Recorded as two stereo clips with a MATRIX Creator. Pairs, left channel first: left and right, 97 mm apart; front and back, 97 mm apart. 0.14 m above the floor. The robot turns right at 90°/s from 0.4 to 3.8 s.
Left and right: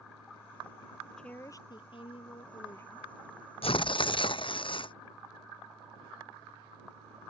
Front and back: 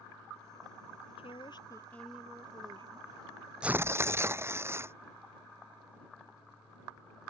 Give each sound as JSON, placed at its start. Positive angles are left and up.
{"t": 1.2, "sound": "a woman speaking", "azimuth_deg": 5}
{"t": 3.6, "sound": "tearing paper", "azimuth_deg": 100}